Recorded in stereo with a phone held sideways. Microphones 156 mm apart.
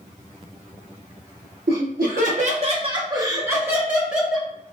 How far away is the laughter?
About 0.8 m.